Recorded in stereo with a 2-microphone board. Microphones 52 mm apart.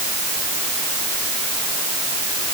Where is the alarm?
No alarm in this recording.